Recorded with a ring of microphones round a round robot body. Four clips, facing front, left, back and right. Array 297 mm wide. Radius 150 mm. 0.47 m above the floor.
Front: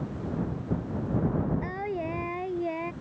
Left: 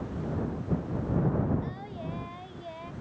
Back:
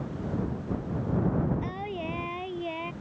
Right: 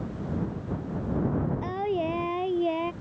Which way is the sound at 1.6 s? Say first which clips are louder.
Right 10 dB, front 2 dB; 75° right.